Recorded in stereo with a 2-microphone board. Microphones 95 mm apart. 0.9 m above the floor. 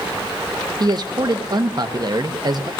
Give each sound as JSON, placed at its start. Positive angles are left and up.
{"t": 0.8, "sound": "a man speaking", "side_deg": -45, "distance_m": 0.8}